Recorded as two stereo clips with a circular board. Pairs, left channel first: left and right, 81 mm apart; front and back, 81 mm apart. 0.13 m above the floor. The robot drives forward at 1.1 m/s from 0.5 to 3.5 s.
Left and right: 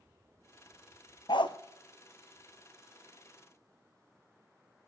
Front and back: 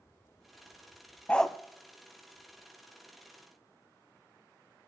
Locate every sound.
1.3 s a dog barking: 75° left, 0.8 m; by 1.6 s 95° left, 0.7 m